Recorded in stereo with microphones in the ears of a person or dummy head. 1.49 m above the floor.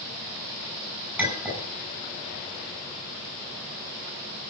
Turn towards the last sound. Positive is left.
turn(degrees=-10)  # may be behind; listen again after turning